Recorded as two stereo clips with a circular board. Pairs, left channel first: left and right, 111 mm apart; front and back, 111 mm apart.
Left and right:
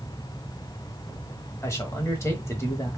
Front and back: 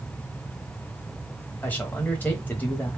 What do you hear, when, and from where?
1.6 s a man speaking: 60° left, 1.2 m